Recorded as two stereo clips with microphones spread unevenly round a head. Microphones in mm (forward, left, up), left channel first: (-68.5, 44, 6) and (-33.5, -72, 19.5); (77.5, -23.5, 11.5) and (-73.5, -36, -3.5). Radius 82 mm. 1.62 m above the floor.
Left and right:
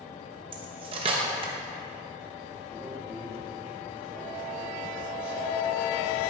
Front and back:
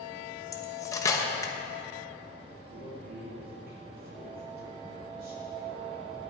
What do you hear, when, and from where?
0.5 s cutlery clinking: 55° right, 1.1 m
2.7 s a man speaking: 150° right, 3.5 m